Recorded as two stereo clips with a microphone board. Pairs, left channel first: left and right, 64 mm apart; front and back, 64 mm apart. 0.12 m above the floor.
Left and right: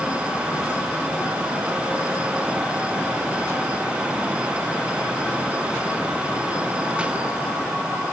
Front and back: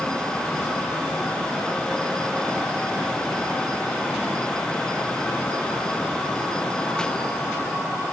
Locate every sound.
Only background noise.